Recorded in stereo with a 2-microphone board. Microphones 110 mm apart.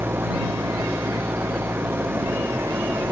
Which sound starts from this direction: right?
An engine running, at 0.0 s.